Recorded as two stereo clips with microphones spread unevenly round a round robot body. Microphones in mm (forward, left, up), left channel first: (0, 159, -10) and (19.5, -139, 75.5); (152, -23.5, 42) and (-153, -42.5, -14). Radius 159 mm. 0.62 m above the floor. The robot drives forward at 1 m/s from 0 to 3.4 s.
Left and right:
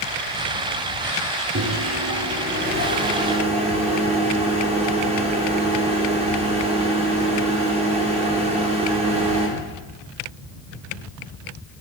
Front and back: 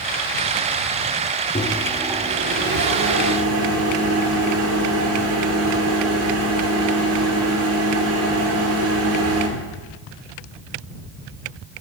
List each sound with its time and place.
1.6 s a microwave: 60° right, 1.1 m; by 9.5 s 160° right, 1.9 m